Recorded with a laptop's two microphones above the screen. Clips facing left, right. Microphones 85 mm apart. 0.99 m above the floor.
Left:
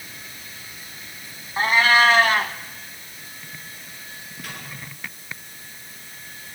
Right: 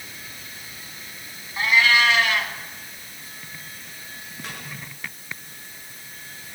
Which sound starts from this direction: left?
A cat meowing, at 1.6 s.